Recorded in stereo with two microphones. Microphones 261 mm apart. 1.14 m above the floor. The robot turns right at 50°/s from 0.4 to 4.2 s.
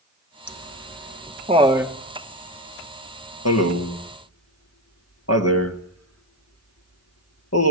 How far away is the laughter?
About 2.5 m.